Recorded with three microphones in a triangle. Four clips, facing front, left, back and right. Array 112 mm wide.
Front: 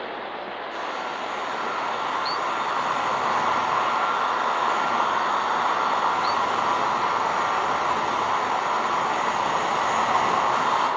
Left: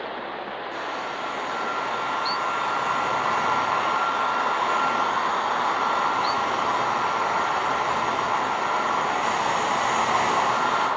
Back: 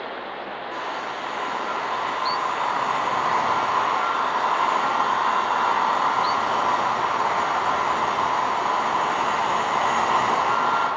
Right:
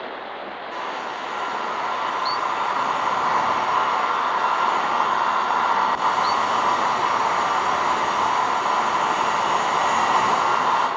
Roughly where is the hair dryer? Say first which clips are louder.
Right 3 dB, back 1 dB; behind right.